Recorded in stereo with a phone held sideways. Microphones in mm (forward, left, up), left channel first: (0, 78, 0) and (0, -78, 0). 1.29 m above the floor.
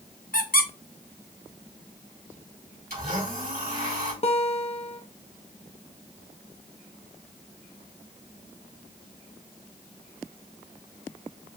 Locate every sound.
0.3 s a squeak: 65° left (ahead or behind), 0.8 m
2.9 s a blender: 70° right (ahead or behind), 3 m
4.2 s a guitar: 40° left (ahead or behind), 0.8 m